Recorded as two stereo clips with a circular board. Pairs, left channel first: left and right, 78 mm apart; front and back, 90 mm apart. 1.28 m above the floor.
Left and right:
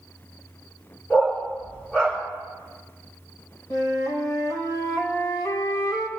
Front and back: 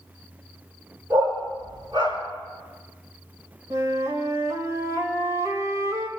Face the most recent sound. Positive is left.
turn(degrees=125)